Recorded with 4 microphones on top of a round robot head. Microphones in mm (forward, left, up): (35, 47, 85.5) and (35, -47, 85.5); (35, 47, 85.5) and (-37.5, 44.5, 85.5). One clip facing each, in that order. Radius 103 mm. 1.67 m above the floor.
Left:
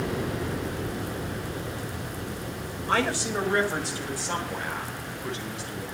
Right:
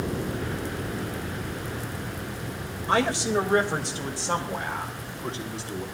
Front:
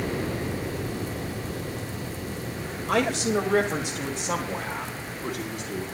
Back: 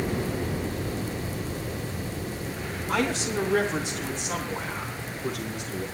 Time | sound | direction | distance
2.9 | a man speaking | 20° right | 3 m